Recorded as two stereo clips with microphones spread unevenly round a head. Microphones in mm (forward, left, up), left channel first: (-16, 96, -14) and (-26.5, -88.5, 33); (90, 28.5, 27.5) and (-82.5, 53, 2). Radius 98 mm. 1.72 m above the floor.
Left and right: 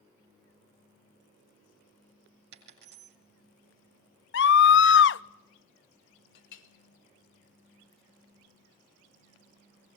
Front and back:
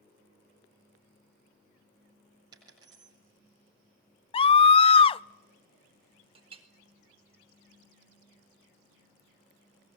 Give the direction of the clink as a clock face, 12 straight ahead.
8 o'clock.